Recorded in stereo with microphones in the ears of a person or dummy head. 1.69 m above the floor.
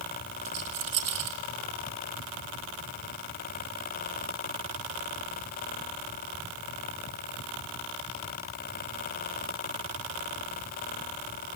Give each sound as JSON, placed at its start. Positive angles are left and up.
{"t": 0.5, "sound": "a rattle", "side_deg": -40, "distance_m": 2.0}